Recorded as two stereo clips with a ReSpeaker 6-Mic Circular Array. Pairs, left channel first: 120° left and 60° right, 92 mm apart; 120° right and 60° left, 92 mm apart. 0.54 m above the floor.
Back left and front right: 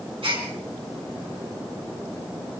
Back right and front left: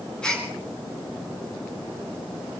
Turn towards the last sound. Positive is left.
turn(degrees=-40)